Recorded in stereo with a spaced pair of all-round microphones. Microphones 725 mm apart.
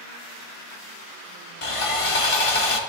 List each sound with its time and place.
1.6 s sawing: 45° left (ahead or behind), 1.0 m